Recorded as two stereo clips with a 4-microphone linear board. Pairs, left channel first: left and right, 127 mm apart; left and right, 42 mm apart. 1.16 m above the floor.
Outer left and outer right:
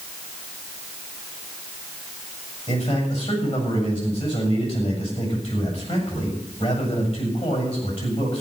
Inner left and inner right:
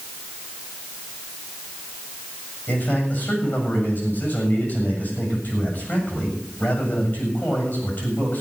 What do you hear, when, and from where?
2.7 s a man speaking: 55° left (ahead or behind), 7 m